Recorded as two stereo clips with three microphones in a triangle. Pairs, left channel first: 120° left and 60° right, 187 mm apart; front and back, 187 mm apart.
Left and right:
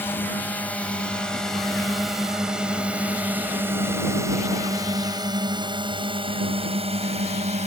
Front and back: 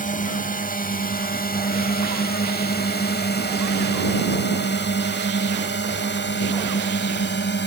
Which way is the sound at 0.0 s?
40° left.